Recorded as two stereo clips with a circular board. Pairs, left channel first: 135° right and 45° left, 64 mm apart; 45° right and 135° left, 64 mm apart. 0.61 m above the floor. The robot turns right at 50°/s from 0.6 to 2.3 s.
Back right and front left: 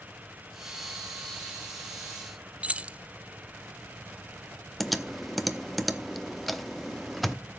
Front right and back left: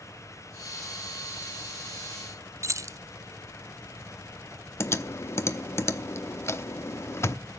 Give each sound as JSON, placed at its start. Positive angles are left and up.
{"t": 2.6, "sound": "keys jangling", "azimuth_deg": 110, "distance_m": 0.6}
{"t": 4.8, "sound": "typing on a keyboard", "azimuth_deg": -45, "distance_m": 0.8}